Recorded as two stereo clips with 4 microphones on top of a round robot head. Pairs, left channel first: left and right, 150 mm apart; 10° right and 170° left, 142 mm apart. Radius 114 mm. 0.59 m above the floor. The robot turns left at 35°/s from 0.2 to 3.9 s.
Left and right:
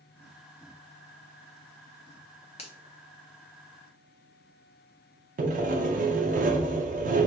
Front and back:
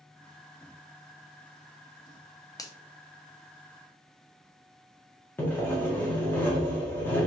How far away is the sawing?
About 0.7 m.